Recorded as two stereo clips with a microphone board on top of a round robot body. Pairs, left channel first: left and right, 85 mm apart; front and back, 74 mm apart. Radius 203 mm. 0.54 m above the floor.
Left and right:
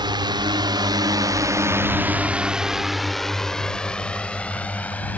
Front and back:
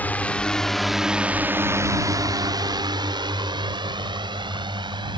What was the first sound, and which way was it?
A drone, 65° right.